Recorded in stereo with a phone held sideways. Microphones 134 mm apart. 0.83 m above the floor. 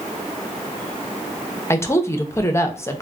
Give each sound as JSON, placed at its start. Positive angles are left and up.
{"t": 1.7, "sound": "a woman speaking", "side_deg": 20, "distance_m": 0.5}